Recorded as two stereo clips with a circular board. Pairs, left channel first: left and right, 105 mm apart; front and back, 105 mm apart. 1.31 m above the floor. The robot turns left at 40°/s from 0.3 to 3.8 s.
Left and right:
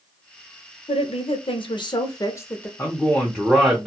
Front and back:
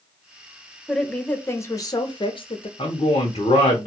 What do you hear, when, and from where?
0.9 s a woman speaking: 90° left, 0.6 m; by 2.7 s 15° left, 0.6 m
2.8 s a man speaking: 25° left, 0.7 m; by 3.9 s 15° right, 0.7 m